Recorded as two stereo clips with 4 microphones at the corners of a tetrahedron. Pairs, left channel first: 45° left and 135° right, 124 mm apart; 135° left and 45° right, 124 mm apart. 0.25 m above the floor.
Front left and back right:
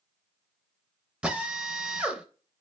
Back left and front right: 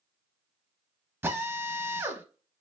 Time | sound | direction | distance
1.2 | a drill | 70° right | 0.7 m